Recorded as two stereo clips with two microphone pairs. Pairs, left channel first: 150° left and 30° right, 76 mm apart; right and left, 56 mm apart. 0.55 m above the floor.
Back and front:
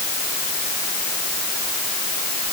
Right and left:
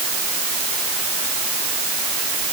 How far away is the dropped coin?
I don't hear a dropped coin.